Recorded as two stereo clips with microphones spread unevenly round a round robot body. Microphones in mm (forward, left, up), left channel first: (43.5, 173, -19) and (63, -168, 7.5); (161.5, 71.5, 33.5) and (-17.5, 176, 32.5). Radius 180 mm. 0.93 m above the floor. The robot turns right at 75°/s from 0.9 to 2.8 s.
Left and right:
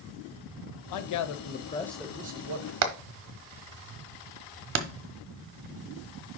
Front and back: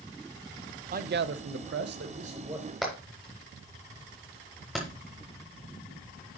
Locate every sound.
0.9 s a man speaking: 105° left, 0.6 m; by 2.7 s 120° right, 0.6 m
2.8 s hammering: 120° right, 0.7 m